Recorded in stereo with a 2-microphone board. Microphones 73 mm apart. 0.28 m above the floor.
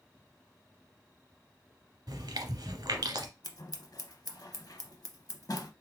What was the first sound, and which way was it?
Chewing, 70° right (ahead or behind).